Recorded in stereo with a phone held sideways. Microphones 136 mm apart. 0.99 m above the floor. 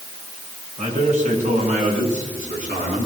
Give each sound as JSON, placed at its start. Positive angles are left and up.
{"t": 0.8, "sound": "a man speaking", "side_deg": -70, "distance_m": 9.0}